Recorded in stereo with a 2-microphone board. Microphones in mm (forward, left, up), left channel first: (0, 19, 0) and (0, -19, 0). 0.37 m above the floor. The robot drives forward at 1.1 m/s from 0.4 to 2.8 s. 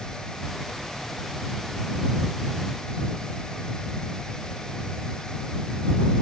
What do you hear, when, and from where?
Only background noise.